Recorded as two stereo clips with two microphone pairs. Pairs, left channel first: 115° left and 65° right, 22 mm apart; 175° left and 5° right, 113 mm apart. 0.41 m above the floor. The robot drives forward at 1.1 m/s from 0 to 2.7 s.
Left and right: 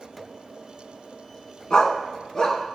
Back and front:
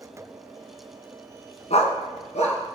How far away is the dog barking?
About 1.2 m.